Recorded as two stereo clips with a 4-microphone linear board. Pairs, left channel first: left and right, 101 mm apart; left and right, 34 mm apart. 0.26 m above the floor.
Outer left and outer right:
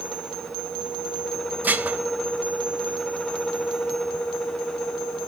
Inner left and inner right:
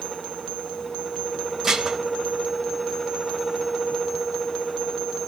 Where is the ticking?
I don't hear ticking.